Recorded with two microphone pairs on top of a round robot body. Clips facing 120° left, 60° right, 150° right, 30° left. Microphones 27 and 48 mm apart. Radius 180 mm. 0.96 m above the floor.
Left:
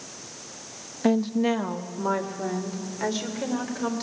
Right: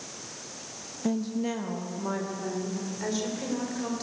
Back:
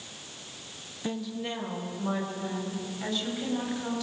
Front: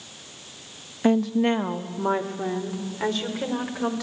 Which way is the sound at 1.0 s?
70° left.